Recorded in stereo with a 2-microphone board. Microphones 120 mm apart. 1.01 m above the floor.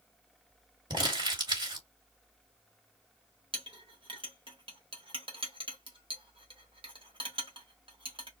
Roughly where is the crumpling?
Right.